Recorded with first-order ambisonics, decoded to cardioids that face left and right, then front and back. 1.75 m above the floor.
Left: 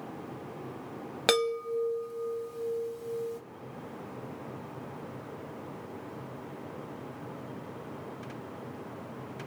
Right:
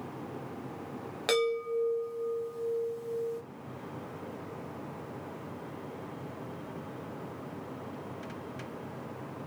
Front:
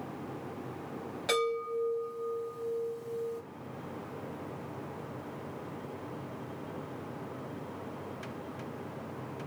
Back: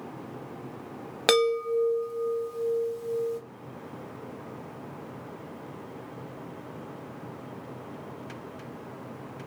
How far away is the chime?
About 0.9 m.